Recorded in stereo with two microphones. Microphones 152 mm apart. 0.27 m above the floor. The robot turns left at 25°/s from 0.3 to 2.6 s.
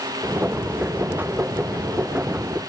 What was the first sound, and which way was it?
Only background noise.